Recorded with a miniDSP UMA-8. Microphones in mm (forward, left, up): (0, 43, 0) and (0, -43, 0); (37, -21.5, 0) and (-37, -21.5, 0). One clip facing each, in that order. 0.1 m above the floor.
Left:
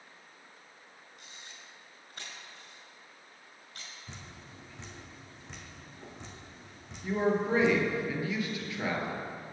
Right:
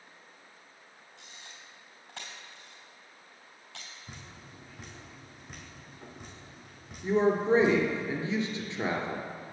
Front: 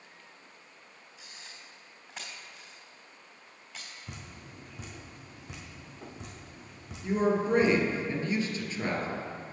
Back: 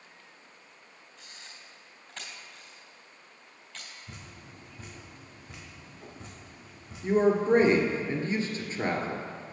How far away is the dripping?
About 1.9 m.